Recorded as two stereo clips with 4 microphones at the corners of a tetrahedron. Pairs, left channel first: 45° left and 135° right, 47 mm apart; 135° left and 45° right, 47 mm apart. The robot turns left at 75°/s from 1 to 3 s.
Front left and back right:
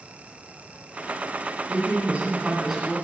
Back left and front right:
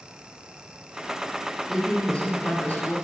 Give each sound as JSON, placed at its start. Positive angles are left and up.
{"t": 1.7, "sound": "a woman speaking", "azimuth_deg": -140, "distance_m": 1.8}